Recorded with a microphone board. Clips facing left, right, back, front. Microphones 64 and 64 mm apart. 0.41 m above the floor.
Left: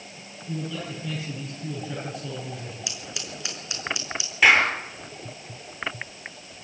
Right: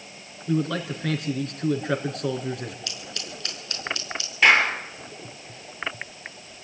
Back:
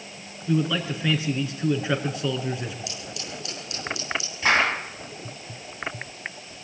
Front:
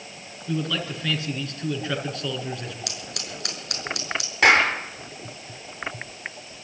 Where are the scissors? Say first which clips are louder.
Even, even; 15° left, 5.5 m.